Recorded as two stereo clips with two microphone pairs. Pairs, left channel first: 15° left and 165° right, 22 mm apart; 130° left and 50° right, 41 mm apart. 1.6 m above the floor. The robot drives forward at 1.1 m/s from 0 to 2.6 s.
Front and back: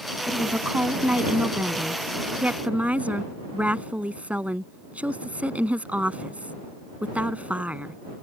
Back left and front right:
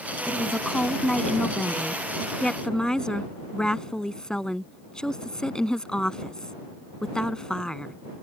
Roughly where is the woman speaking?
Behind right.